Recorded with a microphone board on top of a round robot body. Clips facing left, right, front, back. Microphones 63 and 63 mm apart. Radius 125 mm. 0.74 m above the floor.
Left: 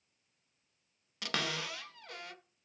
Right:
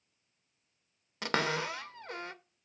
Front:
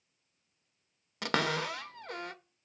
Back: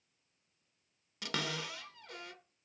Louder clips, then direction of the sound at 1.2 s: Right 6 dB, front 8 dB; 35° right.